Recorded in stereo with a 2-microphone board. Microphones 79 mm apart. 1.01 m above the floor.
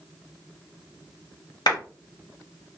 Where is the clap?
65° left (ahead or behind), 1.4 m.